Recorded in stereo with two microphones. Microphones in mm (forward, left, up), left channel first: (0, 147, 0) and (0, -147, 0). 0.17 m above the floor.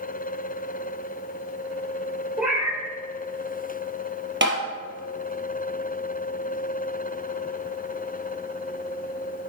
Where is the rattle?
No rattle in this recording.